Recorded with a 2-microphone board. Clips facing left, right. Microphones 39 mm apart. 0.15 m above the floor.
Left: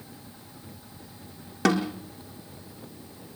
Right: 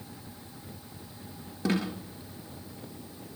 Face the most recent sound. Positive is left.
turn(degrees=65)  # may be behind; listen again after turning